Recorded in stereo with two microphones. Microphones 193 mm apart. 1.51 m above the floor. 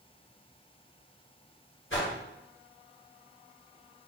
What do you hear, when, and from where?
1.9 s a whoosh: 80° left, 1.5 m